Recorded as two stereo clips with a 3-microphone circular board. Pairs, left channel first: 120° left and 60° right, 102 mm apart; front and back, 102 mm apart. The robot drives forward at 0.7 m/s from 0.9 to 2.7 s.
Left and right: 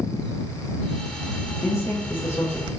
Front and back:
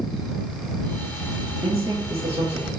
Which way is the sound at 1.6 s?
170° left.